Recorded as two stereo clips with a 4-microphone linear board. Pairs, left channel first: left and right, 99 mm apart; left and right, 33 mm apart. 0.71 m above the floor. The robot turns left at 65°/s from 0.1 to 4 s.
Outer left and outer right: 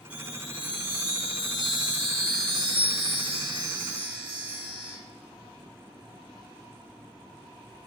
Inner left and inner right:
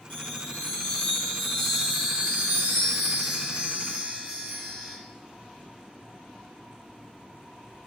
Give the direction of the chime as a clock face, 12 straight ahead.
9 o'clock.